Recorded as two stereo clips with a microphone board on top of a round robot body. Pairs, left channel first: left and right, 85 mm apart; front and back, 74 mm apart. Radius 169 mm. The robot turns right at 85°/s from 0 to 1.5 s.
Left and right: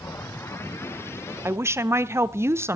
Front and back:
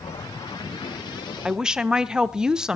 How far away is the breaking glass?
No breaking glass in this recording.